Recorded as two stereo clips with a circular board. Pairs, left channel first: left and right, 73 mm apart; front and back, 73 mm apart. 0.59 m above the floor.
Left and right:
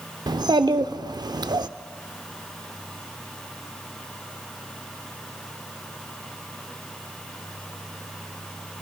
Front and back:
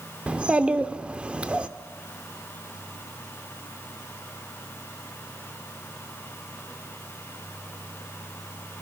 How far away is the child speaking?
About 0.6 m.